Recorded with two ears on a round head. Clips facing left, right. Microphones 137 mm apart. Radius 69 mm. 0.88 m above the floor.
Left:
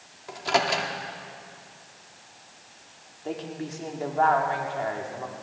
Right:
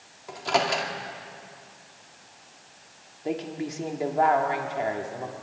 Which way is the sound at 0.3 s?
Centre (ahead or behind).